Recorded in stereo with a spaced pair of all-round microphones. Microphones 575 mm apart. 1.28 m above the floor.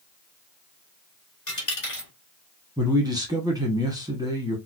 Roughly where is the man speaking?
Centre.